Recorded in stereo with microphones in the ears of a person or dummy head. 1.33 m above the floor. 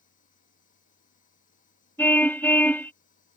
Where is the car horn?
10° left (ahead or behind).